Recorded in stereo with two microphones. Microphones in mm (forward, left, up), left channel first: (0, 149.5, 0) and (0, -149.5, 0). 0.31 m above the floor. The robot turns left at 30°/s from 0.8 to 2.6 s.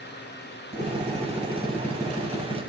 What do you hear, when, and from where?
0.7 s a drill: 155° right, 4 m; by 2.7 s 150° left, 4 m